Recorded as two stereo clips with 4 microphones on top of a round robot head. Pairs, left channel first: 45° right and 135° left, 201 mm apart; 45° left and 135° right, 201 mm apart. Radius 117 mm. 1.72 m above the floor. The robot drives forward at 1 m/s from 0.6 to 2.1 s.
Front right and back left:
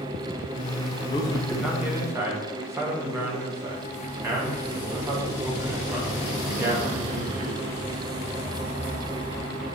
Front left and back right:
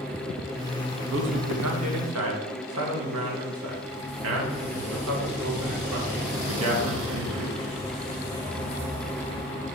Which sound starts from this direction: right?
A man speaking, at 1.1 s.